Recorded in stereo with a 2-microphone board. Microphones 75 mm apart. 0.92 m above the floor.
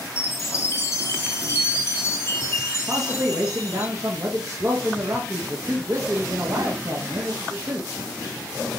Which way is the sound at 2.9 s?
45° right (ahead or behind).